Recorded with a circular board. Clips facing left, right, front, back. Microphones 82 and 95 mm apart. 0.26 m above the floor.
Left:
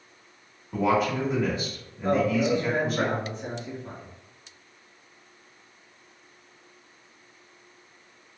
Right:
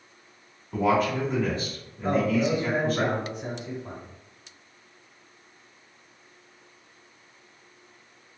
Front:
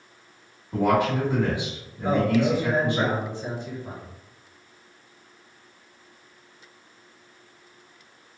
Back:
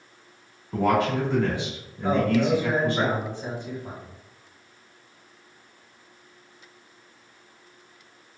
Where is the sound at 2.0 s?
145° right, 1.2 m.